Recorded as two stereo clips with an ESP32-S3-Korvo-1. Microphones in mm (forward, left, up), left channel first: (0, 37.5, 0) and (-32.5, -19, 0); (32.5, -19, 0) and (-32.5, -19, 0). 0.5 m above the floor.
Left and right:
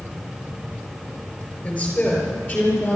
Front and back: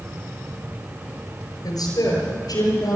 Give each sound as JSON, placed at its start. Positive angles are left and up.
{"t": 1.6, "sound": "a woman speaking", "azimuth_deg": 0, "distance_m": 7.5}